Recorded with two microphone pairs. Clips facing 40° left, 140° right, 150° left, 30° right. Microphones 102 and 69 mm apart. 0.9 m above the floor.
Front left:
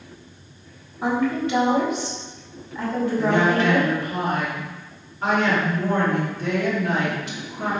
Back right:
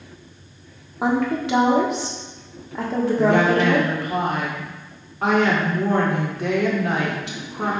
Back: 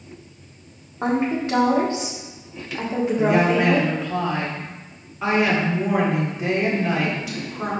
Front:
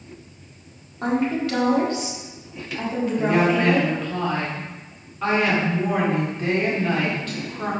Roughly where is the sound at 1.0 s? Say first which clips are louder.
Back right 1 dB, back 1 dB; behind right.